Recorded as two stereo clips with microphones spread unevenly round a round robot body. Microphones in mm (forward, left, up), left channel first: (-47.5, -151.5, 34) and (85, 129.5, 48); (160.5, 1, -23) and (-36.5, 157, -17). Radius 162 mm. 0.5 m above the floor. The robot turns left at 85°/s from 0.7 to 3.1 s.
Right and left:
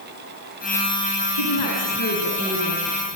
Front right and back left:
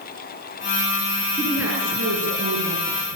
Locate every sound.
1.4 s a woman speaking: 110° right, 7 m; by 3.0 s 110° left, 7 m